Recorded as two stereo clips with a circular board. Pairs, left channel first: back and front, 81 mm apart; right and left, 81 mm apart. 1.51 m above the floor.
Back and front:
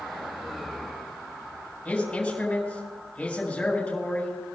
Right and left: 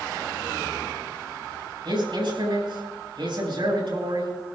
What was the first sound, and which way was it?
A man speaking, 105° left.